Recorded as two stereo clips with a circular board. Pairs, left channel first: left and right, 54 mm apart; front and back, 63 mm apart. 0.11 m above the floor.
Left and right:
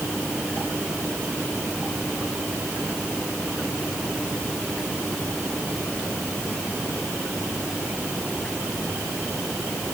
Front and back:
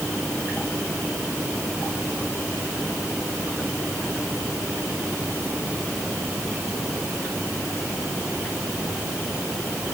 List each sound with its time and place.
Only background noise.